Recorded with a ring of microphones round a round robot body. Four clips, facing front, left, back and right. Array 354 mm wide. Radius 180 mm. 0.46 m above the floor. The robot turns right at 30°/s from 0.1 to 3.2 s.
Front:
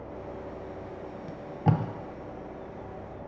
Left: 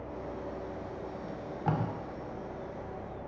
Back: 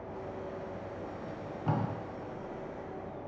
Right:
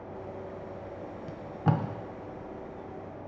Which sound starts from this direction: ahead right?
Tape being pulled, at 1.3 s.